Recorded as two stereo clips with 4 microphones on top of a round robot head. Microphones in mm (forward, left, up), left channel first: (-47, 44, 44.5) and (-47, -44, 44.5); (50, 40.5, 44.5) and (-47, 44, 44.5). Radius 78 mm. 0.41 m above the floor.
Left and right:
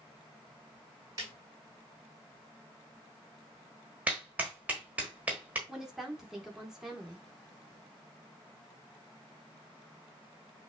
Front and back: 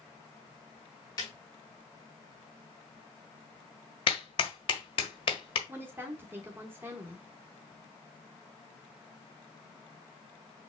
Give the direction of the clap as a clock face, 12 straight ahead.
1 o'clock.